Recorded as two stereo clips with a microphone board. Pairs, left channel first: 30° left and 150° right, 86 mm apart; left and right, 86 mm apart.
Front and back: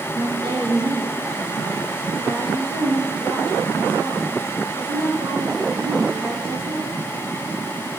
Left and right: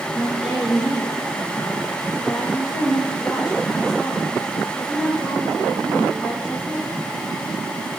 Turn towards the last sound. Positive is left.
turn(degrees=-170)